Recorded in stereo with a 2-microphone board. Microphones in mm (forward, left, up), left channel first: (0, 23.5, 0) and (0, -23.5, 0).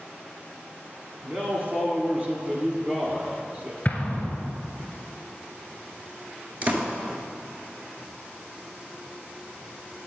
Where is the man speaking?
35° right (ahead or behind), 1.3 m.